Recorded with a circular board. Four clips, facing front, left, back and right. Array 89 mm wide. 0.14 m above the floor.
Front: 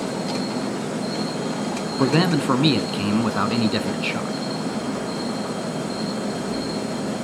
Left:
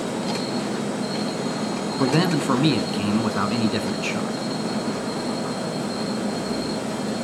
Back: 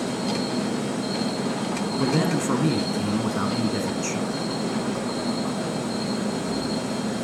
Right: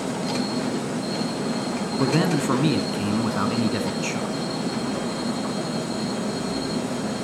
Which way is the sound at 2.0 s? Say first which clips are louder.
Left 1 dB, front 5 dB; 20° left.